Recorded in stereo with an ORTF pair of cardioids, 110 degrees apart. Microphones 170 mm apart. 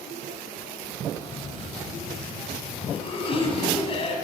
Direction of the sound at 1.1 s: 35° left.